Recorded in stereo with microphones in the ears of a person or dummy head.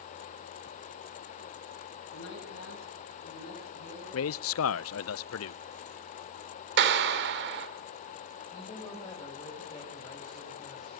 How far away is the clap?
About 3 m.